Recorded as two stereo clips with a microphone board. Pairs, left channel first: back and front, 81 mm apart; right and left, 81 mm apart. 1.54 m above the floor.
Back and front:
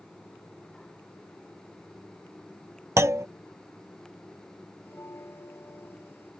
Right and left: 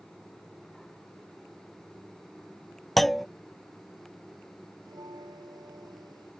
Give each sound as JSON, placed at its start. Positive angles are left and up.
{"t": 3.0, "sound": "a clunk", "azimuth_deg": -5}
{"t": 4.8, "sound": "a bell", "azimuth_deg": 120}